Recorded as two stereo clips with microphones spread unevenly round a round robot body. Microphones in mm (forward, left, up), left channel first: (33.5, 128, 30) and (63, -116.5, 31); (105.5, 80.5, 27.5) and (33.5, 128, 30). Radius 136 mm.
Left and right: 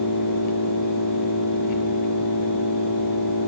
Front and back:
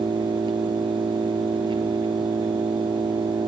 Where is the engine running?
120° left, 5 m.